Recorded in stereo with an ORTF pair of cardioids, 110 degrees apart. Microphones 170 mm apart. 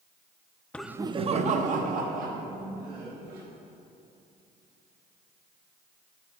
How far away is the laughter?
About 0.5 m.